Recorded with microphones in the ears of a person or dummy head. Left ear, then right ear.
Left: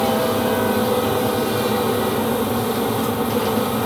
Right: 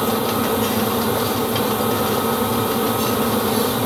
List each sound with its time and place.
Only background noise.